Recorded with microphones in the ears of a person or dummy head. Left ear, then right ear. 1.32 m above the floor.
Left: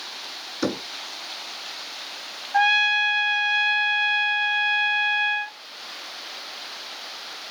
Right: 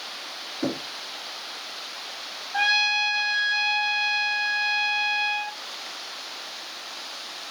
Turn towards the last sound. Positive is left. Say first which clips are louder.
# left 3 dB
turn(degrees=25)  # may be behind; listen again after turning